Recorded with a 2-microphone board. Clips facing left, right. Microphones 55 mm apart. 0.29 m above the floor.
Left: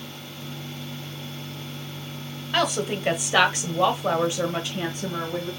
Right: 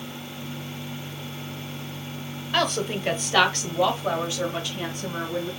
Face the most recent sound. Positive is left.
turn(degrees=20)  # may be behind; listen again after turning